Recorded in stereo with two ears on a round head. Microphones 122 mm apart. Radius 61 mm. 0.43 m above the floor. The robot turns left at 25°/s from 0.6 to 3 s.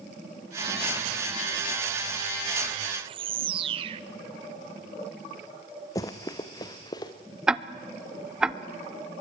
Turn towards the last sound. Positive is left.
turn(degrees=-5)  # may be behind; listen again after turning